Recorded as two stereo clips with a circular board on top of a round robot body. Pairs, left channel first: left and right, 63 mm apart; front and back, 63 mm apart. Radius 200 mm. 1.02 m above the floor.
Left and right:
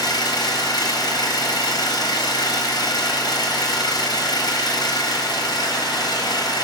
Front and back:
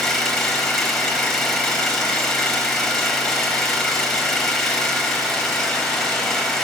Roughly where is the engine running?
Left.